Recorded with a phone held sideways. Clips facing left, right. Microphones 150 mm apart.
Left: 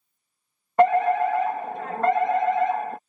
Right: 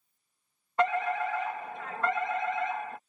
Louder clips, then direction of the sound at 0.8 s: Left 10 dB; 50° left (ahead or behind).